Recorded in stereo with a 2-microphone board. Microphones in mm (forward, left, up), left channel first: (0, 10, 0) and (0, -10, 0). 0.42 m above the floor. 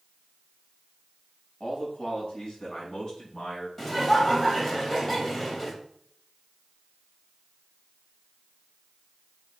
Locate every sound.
1.6 s a man speaking: 40° left (ahead or behind), 3 m
3.8 s laughter: 15° left (ahead or behind), 2.5 m